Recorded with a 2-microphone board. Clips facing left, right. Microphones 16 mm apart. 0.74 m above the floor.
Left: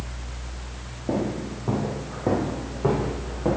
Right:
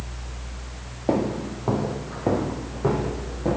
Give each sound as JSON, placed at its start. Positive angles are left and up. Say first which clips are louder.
{"t": 1.1, "sound": "footsteps", "louder": "right 3 dB", "side_deg": -60, "distance_m": 1.3}